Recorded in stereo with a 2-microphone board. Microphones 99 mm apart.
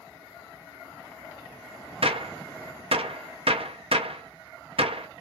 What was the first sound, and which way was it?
A gunshot, 65° right (ahead or behind).